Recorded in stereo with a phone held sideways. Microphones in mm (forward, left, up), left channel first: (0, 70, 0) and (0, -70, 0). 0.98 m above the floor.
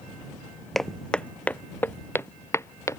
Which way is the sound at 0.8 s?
Centre (ahead or behind).